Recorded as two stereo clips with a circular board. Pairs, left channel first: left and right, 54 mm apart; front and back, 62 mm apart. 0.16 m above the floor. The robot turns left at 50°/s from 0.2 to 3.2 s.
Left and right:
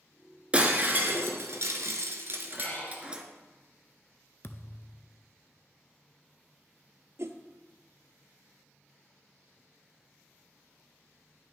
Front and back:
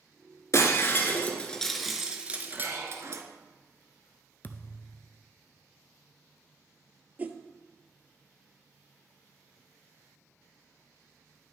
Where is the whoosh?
115° right, 0.6 m.